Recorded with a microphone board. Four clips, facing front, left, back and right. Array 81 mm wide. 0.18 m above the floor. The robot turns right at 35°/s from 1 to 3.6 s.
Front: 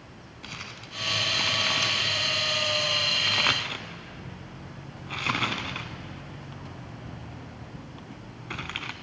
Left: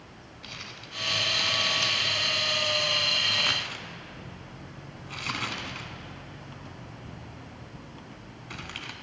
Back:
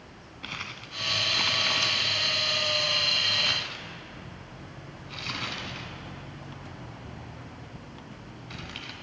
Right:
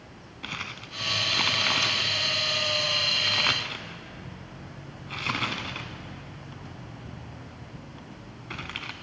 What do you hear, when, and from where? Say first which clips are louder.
0.4 s crumpling: right 7 dB, back 3 dB; 110° right, 0.6 m; by 8.9 s 20° right, 0.6 m